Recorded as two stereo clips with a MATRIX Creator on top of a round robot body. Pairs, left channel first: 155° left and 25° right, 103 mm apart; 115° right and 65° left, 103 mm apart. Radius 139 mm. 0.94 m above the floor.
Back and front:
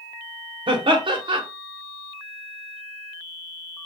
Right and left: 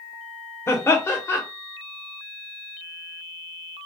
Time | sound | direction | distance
0.7 | laughter | 50° right | 0.9 m